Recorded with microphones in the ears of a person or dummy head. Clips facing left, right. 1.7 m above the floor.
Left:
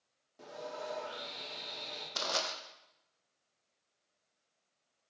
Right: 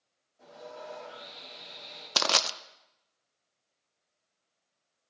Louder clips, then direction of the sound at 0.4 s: Left 2 dB; 85° left.